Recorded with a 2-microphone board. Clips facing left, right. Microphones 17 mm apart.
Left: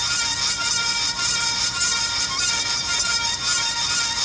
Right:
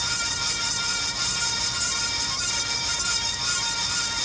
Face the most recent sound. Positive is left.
No sound to turn to.